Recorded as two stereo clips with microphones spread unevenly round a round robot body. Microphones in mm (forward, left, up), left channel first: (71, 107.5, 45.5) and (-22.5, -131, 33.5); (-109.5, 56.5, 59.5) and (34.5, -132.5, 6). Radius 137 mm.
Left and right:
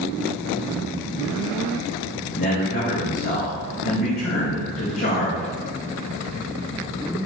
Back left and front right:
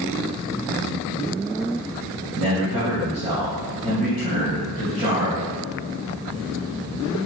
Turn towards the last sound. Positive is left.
turn(degrees=15)